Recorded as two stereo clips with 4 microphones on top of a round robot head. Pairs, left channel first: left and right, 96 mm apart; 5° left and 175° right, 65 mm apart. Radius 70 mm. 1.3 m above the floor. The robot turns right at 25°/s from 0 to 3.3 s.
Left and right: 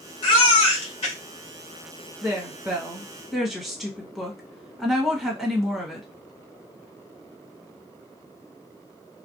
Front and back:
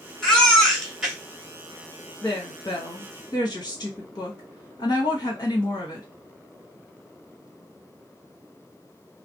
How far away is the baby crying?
About 1.0 m.